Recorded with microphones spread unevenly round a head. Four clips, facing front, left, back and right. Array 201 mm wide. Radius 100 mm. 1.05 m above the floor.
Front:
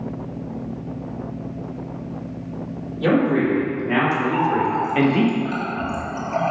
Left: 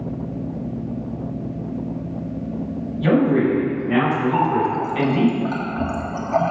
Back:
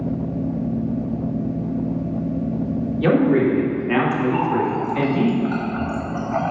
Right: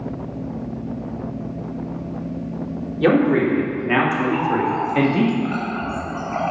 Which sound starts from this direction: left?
A running tap, at 4.3 s.